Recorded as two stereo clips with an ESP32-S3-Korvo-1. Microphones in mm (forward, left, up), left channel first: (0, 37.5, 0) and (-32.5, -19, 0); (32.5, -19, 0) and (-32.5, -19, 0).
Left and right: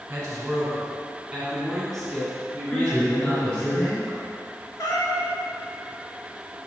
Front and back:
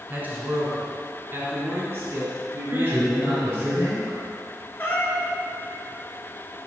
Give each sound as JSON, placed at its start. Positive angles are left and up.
{"t": 0.1, "sound": "a man speaking", "azimuth_deg": -170, "distance_m": 1.3}
{"t": 2.7, "sound": "a man speaking", "azimuth_deg": 145, "distance_m": 1.8}
{"t": 4.8, "sound": "a cat meowing", "azimuth_deg": 50, "distance_m": 1.0}